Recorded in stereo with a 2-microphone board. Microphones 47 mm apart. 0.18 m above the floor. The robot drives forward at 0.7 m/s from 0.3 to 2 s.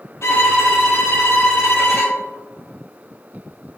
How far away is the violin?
About 2 m.